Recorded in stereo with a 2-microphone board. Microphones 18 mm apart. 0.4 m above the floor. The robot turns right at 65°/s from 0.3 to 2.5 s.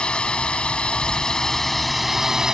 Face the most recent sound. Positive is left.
turn(degrees=-150)